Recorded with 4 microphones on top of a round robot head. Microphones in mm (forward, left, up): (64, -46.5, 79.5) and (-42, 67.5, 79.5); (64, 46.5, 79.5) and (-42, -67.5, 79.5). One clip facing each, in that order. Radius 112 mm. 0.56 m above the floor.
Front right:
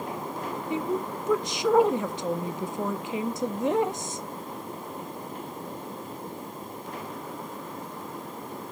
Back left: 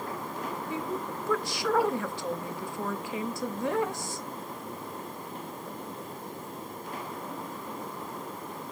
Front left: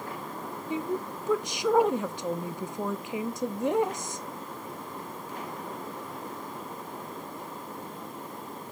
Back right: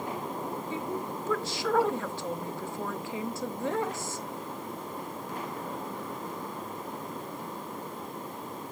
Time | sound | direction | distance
0.7 | a woman speaking | 5° right | 0.6 m